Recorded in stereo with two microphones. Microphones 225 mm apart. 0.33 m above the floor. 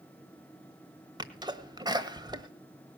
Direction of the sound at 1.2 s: 20° right (ahead or behind).